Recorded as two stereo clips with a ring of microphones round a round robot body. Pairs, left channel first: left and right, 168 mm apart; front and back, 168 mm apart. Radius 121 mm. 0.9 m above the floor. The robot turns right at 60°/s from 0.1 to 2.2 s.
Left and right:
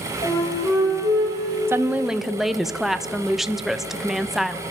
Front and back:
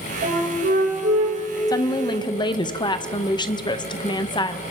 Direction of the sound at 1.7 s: 35° right.